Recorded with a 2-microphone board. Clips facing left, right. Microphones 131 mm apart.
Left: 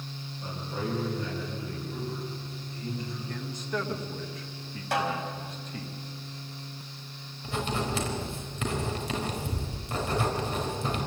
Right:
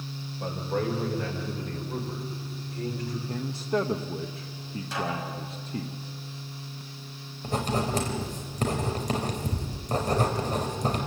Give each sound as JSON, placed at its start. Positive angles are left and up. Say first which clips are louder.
{"t": 0.4, "sound": "a man speaking", "louder": "right 6 dB", "side_deg": -80, "distance_m": 8.0}
{"t": 3.3, "sound": "a man speaking", "louder": "right 6 dB", "side_deg": -30, "distance_m": 1.0}
{"t": 4.9, "sound": "a snare drum", "louder": "left 3 dB", "side_deg": 65, "distance_m": 5.0}
{"t": 7.4, "sound": "writing", "louder": "right 3 dB", "side_deg": -40, "distance_m": 4.0}